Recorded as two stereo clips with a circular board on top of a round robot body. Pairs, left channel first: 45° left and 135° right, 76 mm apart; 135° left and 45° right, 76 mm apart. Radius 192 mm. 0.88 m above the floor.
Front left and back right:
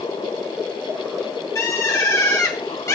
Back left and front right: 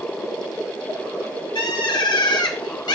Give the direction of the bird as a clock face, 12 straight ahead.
9 o'clock.